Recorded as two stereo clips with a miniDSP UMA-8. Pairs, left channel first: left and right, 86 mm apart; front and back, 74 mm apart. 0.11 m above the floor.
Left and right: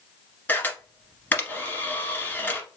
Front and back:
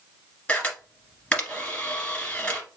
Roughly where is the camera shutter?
Ahead left.